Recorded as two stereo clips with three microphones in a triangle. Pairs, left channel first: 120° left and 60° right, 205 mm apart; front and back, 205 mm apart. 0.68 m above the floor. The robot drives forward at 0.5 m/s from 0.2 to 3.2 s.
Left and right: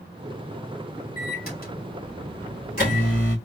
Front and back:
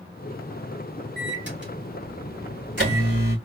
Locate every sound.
1.2 s a microwave: 160° left, 2 m; by 3.4 s 165° left, 3 m